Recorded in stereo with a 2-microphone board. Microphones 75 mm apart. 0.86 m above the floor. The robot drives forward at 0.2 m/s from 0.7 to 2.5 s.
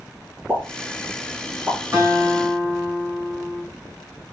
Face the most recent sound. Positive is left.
turn(degrees=-40)  # may be behind; listen again after turning